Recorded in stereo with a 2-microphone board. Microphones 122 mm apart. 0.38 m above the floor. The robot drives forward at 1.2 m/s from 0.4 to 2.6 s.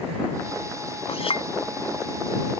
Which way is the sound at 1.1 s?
65° left (ahead or behind).